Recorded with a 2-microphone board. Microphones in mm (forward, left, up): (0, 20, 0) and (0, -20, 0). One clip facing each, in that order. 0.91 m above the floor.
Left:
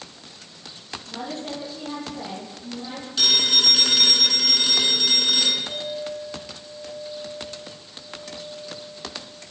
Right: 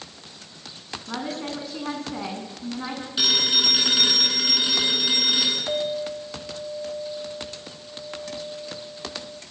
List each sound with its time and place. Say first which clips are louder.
1.1 s a woman speaking: right 2 dB; 80° right, 8.5 m
3.2 s a phone ringing: left 2 dB; 15° right (ahead or behind), 8 m
5.7 s a clink: right 4 dB; 75° right (ahead or behind), 4 m